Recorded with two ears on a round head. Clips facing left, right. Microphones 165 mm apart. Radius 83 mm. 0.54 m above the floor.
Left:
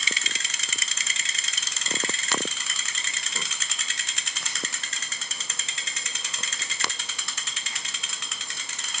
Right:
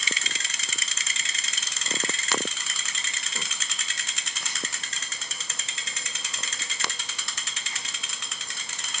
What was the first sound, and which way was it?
Only background noise.